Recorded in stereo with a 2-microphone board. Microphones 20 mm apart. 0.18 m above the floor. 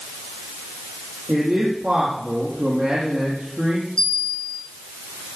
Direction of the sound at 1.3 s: 70° right (ahead or behind).